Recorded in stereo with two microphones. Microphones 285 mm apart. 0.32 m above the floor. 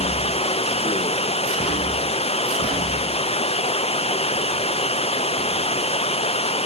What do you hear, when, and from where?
0.0 s running water: 20° left (ahead or behind)